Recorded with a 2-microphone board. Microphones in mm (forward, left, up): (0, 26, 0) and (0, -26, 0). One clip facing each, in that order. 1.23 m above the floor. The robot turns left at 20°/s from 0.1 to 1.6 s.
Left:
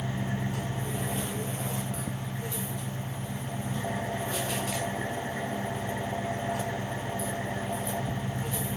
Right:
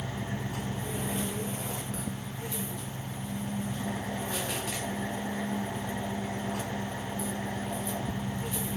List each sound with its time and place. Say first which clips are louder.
0.0 s an engine running: left 3 dB; 160° left, 2 m; by 8.8 s 130° left, 2 m